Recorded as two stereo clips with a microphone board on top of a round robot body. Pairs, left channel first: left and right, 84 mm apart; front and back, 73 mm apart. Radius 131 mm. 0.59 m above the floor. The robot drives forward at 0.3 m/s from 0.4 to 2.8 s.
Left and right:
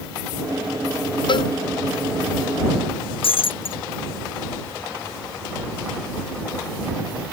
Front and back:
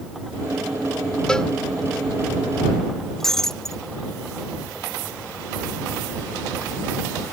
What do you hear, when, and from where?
1.3 s a cowbell: 80° left
3.2 s breaking glass: 85° left